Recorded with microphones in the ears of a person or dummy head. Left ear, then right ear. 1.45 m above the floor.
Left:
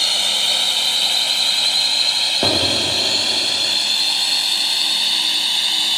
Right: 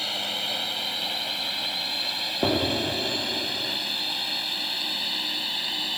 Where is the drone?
45° left (ahead or behind); by 6.0 s 40° left (ahead or behind).